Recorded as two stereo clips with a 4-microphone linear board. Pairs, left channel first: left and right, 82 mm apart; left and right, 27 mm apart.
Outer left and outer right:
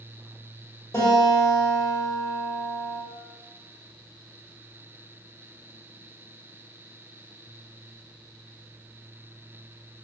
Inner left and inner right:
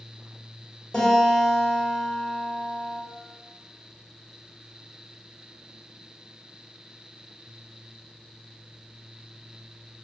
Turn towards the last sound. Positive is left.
turn(degrees=40)  # may be behind; listen again after turning